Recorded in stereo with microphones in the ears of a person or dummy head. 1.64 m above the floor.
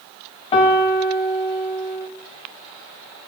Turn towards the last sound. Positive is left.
turn(degrees=30)  # may be behind; listen again after turning